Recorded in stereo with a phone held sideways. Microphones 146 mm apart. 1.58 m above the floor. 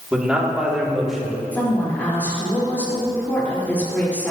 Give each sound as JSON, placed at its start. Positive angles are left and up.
{"t": 0.1, "sound": "a man speaking", "side_deg": -10, "distance_m": 3.0}
{"t": 1.5, "sound": "a woman speaking", "side_deg": 10, "distance_m": 5.0}